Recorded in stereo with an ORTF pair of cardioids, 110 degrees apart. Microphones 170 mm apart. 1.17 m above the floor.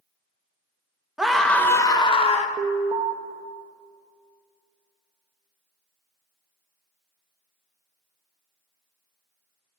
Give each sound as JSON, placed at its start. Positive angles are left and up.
{"t": 1.2, "sound": "a scream", "azimuth_deg": -5, "distance_m": 1.1}
{"t": 2.6, "sound": "an alarm", "azimuth_deg": -30, "distance_m": 0.9}